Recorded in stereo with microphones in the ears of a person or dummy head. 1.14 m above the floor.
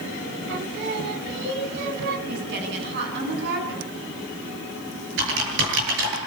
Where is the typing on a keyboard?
70° right (ahead or behind), 9.5 m.